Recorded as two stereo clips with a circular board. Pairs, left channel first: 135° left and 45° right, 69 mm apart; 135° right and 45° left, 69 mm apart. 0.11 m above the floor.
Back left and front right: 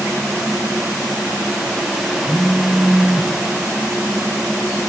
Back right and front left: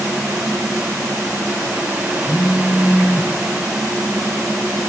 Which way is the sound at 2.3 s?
65° right.